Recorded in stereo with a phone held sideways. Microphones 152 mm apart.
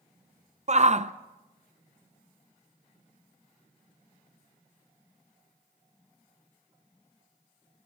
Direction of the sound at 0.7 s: 50° right (ahead or behind).